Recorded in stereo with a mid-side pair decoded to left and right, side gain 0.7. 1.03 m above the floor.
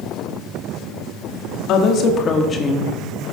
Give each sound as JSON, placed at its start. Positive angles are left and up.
{"t": 1.7, "sound": "a woman speaking", "azimuth_deg": 55, "distance_m": 1.6}